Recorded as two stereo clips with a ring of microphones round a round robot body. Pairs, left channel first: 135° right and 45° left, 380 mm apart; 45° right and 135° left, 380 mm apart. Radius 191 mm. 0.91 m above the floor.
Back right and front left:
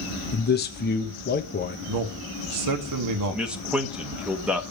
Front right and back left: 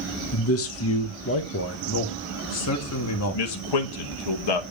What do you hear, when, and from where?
0.3 s a man speaking: 80° right, 0.9 m
1.9 s a man speaking: 5° left, 1.5 m
3.3 s a man speaking: 40° right, 1.3 m